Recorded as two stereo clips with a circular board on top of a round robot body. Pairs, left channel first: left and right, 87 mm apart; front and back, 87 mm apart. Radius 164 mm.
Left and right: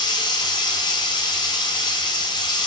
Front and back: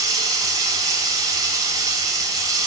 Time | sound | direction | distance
0.0 | running water | 130° left | 0.8 m